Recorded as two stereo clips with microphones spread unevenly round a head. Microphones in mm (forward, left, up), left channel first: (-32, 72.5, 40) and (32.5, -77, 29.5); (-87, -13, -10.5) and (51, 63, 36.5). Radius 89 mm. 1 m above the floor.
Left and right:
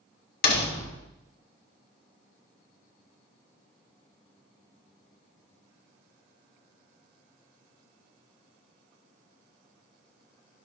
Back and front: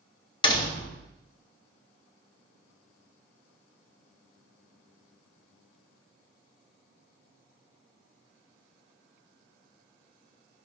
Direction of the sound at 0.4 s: 150° left.